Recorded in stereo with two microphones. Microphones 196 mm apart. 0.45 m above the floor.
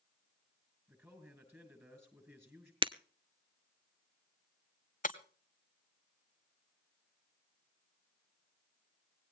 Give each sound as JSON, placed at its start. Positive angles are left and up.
{"t": 0.9, "sound": "a man speaking", "side_deg": -10, "distance_m": 6.5}
{"t": 2.8, "sound": "breaking glass", "side_deg": -25, "distance_m": 0.6}
{"t": 5.0, "sound": "breaking glass", "side_deg": 40, "distance_m": 1.1}